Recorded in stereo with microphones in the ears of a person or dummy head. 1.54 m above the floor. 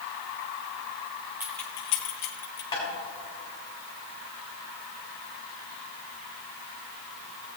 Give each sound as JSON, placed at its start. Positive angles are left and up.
{"t": 1.4, "sound": "keys jangling", "side_deg": -5, "distance_m": 0.6}
{"t": 2.7, "sound": "tapping", "side_deg": 25, "distance_m": 3.5}